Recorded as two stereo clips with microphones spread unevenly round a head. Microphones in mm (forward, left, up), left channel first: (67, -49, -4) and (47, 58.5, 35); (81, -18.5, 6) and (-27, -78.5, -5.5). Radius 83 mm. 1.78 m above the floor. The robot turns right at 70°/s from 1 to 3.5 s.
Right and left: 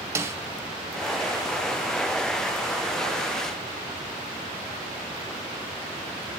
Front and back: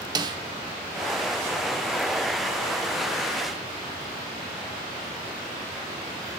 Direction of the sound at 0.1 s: 150° left.